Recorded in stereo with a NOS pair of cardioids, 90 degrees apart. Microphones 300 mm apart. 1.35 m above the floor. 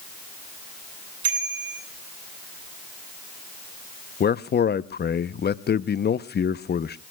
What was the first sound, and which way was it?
A bicycle bell, 50° right.